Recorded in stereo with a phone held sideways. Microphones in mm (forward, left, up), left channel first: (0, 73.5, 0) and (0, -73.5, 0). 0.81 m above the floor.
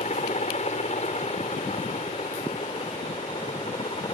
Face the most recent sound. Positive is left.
turn(degrees=40)  # may be behind; listen again after turning